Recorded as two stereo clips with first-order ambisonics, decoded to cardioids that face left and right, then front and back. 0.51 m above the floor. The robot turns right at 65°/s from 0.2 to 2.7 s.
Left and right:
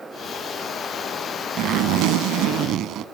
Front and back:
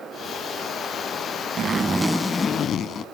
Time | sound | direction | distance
1.6 | a zipper | 125° right | 0.6 m